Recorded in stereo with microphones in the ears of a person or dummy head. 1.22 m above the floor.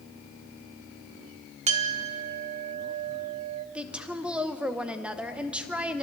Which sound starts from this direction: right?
A clink, at 1.7 s.